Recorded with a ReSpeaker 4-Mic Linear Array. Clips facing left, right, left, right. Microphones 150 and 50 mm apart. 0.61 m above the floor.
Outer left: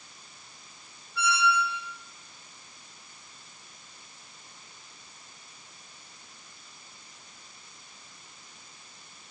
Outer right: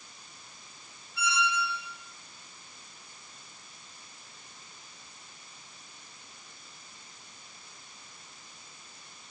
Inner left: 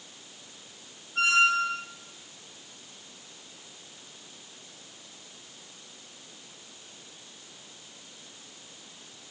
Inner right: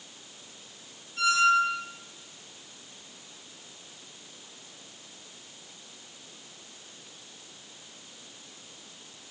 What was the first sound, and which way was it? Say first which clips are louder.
A squeak: outer left 4 dB, inner right 1 dB; 50° left (ahead or behind).